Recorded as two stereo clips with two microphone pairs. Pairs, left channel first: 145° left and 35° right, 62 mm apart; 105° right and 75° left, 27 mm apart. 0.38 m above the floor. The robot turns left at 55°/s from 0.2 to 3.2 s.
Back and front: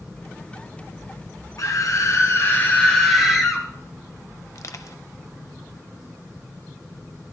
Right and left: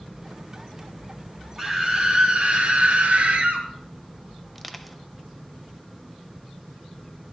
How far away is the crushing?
About 0.6 m.